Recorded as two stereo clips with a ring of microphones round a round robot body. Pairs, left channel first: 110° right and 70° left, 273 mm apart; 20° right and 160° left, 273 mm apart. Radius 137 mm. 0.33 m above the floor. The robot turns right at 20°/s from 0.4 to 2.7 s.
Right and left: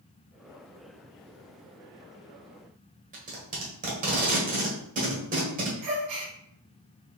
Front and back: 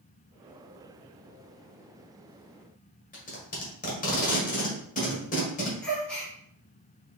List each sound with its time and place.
3.1 s tape being pulled: 25° left, 1.4 m
5.8 s a gasp: 65° left, 1.7 m